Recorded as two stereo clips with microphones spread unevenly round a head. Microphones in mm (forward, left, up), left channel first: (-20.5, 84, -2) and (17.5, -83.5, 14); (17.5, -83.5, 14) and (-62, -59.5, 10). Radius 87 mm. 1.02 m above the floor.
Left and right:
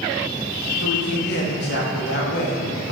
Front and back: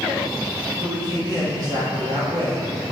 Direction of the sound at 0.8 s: 110° left.